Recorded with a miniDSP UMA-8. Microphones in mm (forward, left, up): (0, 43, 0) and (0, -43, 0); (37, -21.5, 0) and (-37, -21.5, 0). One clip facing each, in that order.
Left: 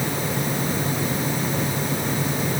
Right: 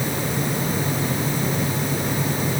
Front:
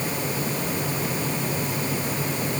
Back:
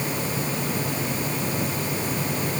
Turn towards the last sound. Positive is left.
No sound to turn to.